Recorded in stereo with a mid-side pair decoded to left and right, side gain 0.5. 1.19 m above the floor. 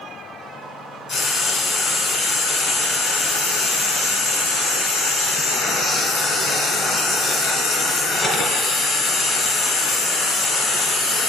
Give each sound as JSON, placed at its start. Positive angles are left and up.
{"t": 1.1, "sound": "frying", "azimuth_deg": 55, "distance_m": 4.0}